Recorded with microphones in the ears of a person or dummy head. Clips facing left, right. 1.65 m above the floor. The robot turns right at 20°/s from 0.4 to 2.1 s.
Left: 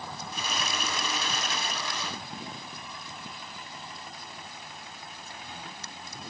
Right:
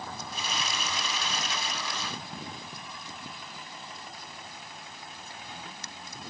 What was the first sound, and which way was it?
Only background noise.